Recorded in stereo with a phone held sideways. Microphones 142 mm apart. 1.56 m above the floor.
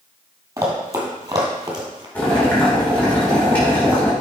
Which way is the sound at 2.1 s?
10° left (ahead or behind).